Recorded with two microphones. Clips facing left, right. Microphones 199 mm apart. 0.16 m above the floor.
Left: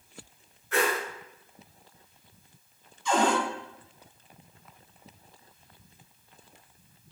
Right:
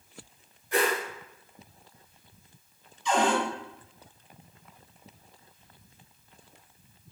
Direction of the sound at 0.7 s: 15° right (ahead or behind).